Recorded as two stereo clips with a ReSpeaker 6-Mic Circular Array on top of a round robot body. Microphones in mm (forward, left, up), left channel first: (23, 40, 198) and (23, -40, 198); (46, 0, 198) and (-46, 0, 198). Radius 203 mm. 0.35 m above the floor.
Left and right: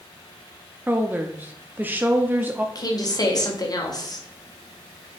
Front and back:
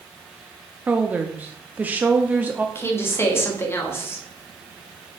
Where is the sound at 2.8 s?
60° left, 1.9 m.